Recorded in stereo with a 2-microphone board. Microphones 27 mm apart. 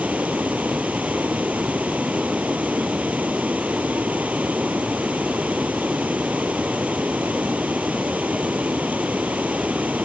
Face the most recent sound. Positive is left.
turn(degrees=-80)